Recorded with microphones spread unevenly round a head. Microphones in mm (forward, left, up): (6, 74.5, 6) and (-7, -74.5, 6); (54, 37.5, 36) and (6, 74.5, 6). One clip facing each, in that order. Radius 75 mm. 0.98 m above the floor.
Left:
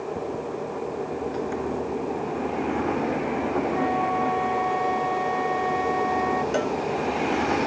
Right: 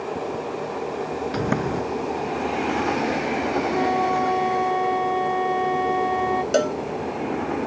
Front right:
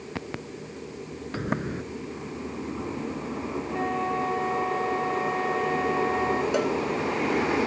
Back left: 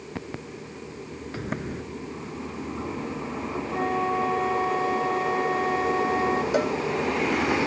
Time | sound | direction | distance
1.3 | a sliding door | 110° right | ?
3.7 | a flute | 140° right | ?
6.5 | a cowbell | 135° right | ?